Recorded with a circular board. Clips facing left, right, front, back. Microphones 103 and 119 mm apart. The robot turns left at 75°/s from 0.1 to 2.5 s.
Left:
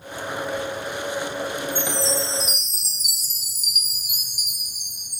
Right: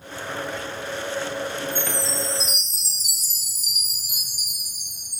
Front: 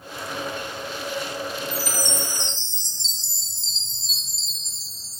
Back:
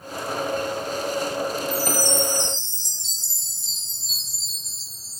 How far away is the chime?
About 4.5 m.